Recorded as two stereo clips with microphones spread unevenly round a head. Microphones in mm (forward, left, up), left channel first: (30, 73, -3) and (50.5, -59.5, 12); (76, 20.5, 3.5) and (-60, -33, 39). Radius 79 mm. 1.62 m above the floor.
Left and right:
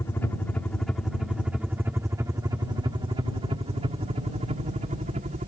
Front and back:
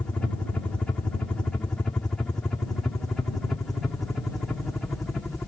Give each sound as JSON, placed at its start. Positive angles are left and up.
{"t": 0.0, "sound": "a helicopter", "azimuth_deg": 65}